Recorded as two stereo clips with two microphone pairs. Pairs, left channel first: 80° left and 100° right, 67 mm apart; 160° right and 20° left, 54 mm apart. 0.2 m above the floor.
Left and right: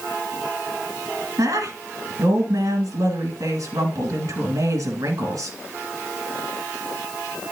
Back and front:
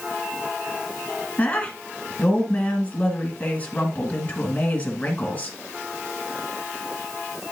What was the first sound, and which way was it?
A woman speaking, 105° right.